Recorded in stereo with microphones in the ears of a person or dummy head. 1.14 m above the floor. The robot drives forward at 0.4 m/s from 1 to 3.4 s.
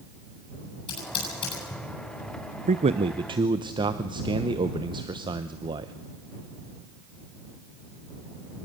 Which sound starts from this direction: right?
A man speaking, at 2.7 s.